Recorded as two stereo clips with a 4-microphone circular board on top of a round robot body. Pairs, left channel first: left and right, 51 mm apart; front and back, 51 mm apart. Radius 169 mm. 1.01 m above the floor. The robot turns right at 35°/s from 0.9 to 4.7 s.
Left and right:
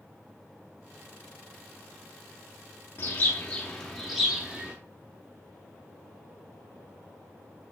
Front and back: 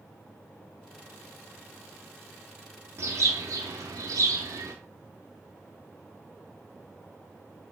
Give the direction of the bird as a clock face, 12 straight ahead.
7 o'clock.